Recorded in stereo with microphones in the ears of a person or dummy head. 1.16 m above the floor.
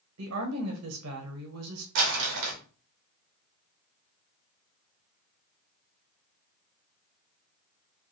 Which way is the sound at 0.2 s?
75° right (ahead or behind).